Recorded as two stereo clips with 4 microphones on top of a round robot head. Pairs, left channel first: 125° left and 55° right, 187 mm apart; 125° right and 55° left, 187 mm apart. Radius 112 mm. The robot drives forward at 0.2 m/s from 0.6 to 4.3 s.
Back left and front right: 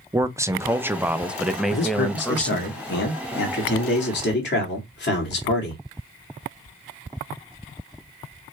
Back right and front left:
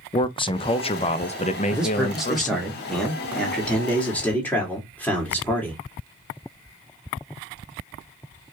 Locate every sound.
0.1 s a man speaking: 110° right, 0.6 m; by 2.7 s 155° right, 0.8 m
1.7 s a man speaking: 140° left, 1.1 m; by 5.8 s 155° left, 1.5 m